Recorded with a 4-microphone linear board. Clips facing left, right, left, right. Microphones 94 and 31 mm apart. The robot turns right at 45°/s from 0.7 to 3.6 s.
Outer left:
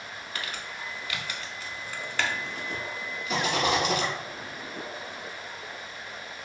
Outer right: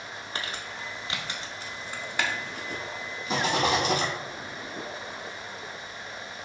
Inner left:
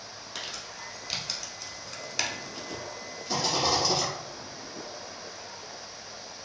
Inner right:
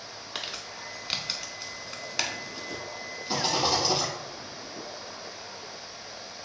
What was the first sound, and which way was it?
Crumpling, 30° right (ahead or behind).